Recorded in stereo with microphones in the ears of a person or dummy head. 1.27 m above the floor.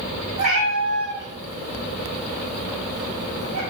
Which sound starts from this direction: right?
A cat meowing, at 0.4 s.